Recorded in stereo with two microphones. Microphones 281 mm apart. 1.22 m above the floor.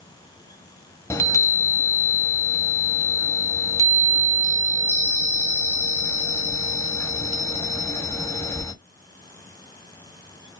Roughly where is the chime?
Centre.